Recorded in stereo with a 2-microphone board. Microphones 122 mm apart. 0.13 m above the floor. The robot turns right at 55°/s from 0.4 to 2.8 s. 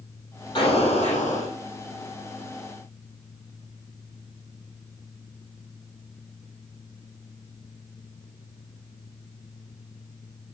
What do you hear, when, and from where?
0.6 s an explosion: 40° left, 5.5 m; by 1.5 s 95° left, 5.5 m